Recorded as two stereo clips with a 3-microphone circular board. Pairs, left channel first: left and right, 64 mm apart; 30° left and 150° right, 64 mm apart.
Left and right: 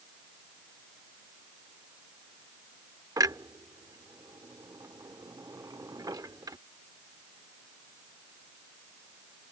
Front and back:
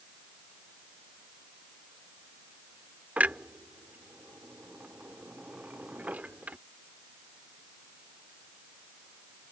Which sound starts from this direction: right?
A clunk, at 3.2 s.